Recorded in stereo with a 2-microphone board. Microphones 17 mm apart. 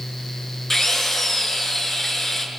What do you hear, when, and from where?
0.7 s a drill: 20° left (ahead or behind), 7.5 m